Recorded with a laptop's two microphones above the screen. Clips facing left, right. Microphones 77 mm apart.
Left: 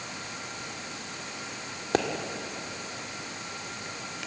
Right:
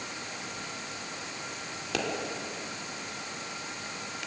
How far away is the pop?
About 2 m.